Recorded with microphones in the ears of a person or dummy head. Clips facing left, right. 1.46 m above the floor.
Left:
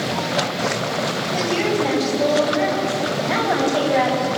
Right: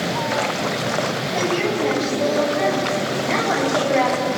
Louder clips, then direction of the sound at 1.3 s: Left 1 dB; 15° right (ahead or behind).